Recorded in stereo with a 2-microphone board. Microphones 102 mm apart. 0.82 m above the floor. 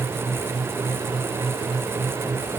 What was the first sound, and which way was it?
Only background noise.